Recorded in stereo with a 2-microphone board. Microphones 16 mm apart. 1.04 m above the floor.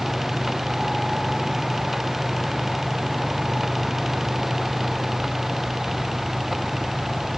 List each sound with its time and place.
Only background noise.